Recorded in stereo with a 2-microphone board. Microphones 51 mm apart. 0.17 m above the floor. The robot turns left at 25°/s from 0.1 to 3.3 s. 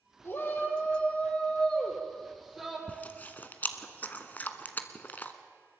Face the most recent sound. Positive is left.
turn(degrees=35)  # may be behind; listen again after turning